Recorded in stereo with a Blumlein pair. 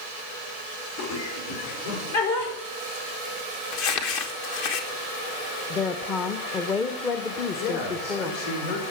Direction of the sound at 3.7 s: 45° left.